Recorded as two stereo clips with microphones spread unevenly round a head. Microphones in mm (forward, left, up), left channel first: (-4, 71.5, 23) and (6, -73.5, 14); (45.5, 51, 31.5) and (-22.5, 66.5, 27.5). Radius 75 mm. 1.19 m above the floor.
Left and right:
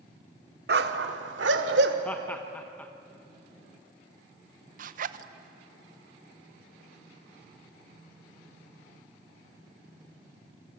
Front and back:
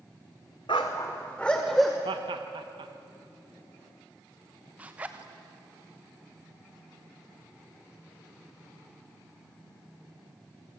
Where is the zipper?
120° right, 0.9 m.